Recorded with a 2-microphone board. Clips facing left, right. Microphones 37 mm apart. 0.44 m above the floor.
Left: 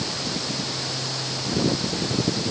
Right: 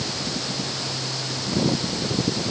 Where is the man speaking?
No man speaking in this recording.